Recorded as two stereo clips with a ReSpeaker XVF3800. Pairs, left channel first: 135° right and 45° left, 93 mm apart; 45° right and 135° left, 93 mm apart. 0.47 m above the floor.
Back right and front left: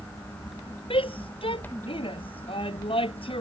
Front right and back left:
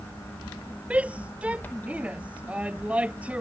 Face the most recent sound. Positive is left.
turn(degrees=-150)